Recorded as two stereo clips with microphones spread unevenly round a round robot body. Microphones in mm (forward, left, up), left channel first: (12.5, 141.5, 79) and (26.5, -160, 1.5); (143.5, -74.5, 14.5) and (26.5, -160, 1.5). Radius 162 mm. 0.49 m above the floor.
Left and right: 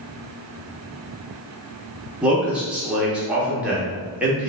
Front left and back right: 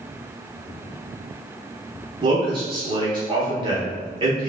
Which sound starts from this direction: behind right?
A man speaking, at 2.2 s.